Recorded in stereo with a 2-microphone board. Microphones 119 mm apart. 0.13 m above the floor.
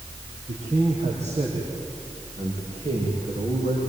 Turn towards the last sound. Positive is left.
turn(degrees=-70)  # may be behind; listen again after turning